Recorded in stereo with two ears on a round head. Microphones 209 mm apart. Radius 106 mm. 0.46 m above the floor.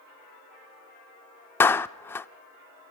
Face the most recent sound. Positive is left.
turn(degrees=10)  # may be behind; listen again after turning